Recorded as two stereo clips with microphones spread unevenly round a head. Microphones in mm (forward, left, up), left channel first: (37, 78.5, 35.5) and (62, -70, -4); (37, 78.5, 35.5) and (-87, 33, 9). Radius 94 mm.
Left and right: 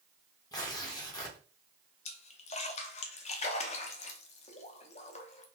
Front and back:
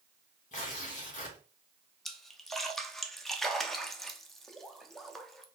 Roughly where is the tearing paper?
Ahead left.